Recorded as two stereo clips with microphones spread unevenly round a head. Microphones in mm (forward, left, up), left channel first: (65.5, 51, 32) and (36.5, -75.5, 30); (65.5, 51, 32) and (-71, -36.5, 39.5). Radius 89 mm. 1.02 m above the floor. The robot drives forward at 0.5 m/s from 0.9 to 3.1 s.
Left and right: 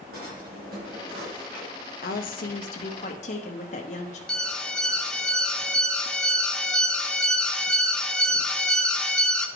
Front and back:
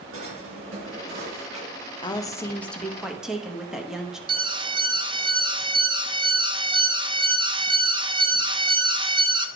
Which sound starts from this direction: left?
A woman speaking, at 2.0 s.